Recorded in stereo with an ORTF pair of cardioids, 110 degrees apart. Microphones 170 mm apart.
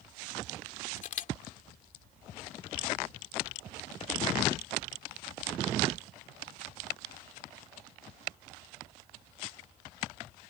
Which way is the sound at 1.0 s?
50° left.